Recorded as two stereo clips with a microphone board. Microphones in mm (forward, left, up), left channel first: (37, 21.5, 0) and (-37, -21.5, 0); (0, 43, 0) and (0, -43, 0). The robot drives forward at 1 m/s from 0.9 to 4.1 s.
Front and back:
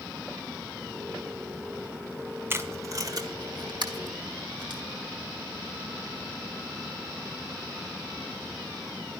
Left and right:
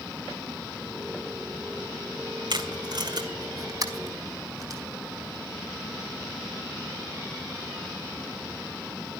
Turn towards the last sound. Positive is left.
turn(degrees=-135)